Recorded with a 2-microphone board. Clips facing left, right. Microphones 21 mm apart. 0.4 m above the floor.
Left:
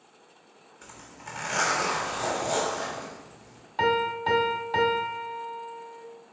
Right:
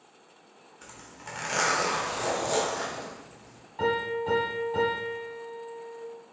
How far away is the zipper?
About 1.1 m.